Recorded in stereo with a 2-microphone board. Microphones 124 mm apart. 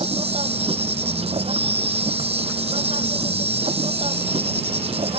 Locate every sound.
0.0 s an insect: 55° right (ahead or behind)